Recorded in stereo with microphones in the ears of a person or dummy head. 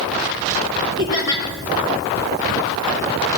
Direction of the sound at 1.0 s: 15° right (ahead or behind).